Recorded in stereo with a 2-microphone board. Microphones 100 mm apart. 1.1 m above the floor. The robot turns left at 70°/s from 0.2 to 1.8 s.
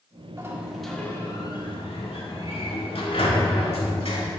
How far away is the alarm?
No alarm in this recording.